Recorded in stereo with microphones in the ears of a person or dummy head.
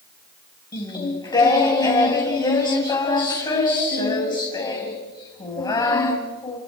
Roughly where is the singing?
Centre.